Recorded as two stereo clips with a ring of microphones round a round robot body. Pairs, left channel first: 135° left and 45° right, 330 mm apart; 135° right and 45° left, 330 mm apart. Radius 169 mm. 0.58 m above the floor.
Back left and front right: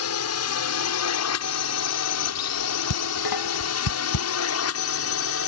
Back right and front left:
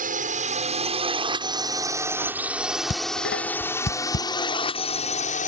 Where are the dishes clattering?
165° left.